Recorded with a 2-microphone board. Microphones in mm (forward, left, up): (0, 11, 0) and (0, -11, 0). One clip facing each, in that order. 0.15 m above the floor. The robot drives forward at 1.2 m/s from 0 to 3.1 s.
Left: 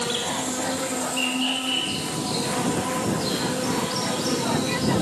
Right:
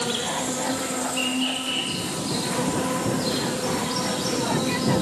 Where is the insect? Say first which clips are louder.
Even; 5° left (ahead or behind), 4.5 m.